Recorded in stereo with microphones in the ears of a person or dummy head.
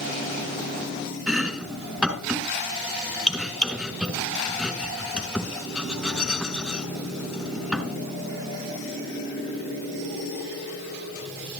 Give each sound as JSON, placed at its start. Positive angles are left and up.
{"t": 1.3, "sound": "chopping", "side_deg": 0, "distance_m": 3.0}